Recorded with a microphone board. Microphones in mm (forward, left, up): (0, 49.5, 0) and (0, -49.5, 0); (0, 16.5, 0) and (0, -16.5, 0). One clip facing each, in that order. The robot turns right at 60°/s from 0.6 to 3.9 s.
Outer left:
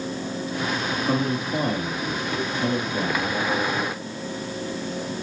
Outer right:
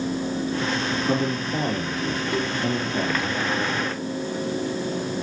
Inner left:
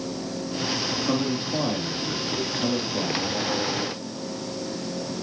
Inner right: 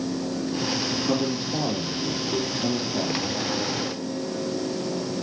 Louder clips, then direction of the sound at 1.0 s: Outer left 2 dB, even; 25° left.